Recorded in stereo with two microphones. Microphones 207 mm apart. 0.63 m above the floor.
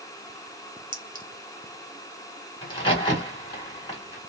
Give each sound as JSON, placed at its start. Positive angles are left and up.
{"t": 0.9, "sound": "a clink", "side_deg": -40, "distance_m": 0.5}
{"t": 2.6, "sound": "a crack", "side_deg": 25, "distance_m": 1.6}